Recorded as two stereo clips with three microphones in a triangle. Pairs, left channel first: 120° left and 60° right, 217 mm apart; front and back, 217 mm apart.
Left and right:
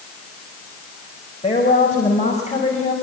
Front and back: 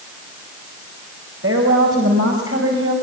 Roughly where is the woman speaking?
Behind.